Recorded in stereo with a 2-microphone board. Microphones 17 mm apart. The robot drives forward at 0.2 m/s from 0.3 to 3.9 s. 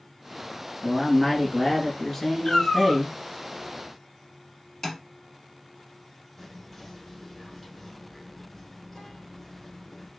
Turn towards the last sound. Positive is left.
turn(degrees=15)  # may be behind; listen again after turning